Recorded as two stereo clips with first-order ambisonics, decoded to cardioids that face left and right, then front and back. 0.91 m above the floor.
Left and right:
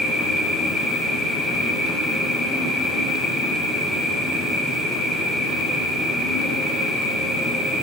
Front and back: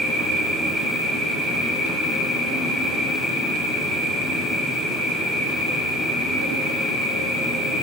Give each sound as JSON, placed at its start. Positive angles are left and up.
{"t": 0.0, "sound": "an insect", "azimuth_deg": 140, "distance_m": 1.4}